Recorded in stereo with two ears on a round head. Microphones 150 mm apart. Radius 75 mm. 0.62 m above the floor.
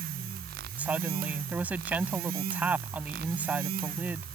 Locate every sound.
0.8 s a woman speaking: 10° right (ahead or behind)